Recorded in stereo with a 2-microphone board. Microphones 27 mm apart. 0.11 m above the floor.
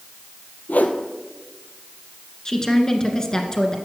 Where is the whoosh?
70° left (ahead or behind), 0.9 m.